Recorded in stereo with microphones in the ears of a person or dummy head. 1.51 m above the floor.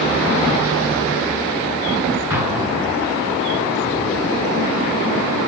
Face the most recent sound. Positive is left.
turn(degrees=-20)  # may be behind; listen again after turning